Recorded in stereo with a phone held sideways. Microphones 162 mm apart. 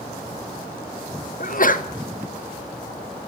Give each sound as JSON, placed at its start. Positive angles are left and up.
{"t": 1.4, "sound": "a sneeze", "side_deg": 60, "distance_m": 0.6}